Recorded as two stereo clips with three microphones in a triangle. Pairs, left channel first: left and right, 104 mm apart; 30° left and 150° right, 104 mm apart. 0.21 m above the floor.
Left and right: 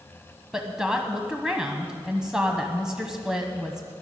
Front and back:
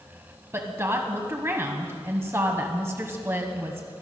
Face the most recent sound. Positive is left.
turn(degrees=-165)